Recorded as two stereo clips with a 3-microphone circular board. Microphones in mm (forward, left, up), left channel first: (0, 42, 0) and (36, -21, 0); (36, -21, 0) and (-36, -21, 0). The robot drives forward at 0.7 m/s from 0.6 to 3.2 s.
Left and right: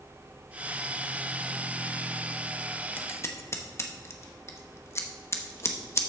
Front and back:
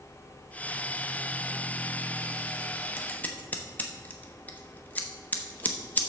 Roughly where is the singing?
I don't hear singing.